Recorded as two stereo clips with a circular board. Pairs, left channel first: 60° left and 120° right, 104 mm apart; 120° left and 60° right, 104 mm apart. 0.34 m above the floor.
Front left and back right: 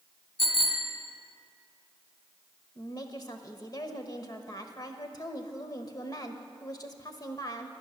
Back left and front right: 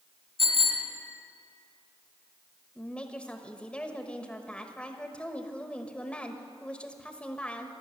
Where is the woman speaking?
50° left, 1.1 m.